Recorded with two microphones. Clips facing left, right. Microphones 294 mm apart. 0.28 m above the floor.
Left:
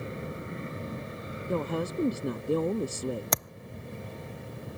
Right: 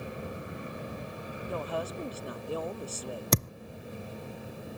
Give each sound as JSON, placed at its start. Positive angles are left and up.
{"t": 0.0, "sound": "an aircraft", "side_deg": 20}
{"t": 1.5, "sound": "a woman speaking", "side_deg": 50}
{"t": 3.3, "sound": "a thud", "side_deg": -35}